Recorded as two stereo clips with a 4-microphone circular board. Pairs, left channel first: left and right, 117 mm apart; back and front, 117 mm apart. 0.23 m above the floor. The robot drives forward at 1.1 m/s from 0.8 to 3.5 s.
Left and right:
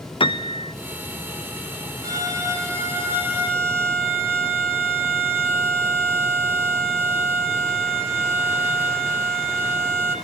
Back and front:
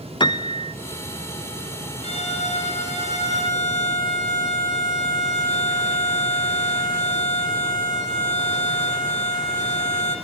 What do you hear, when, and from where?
0.2 s a piano: 130° left, 0.6 m
2.0 s a violin: 150° right, 3 m; by 10.2 s 160° right, 4.5 m